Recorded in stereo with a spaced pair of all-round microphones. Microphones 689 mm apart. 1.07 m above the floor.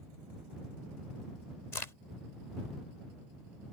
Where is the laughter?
I don't hear laughter.